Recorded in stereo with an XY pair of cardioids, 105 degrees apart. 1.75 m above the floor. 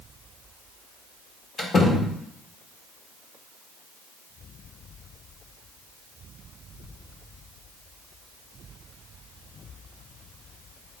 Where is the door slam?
45° left, 1.9 m.